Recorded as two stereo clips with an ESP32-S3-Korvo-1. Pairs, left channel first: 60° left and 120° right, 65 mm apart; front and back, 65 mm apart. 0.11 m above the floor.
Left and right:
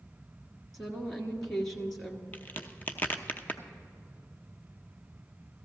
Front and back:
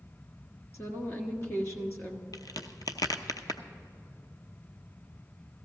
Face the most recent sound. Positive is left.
turn(degrees=0)